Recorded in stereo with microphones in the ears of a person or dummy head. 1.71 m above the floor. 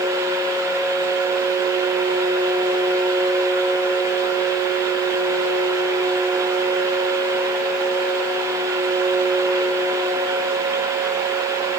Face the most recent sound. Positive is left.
No sound to turn to.